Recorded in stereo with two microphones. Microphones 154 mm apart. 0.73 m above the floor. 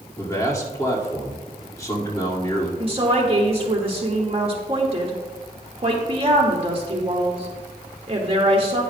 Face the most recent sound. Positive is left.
turn(degrees=-40)  # may be behind; listen again after turning